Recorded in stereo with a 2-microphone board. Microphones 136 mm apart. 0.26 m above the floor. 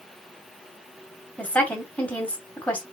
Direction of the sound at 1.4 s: 10° left (ahead or behind).